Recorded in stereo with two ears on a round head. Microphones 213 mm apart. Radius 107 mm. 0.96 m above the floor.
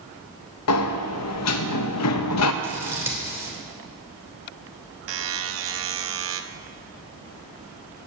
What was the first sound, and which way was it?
A sliding door, 70° left (ahead or behind).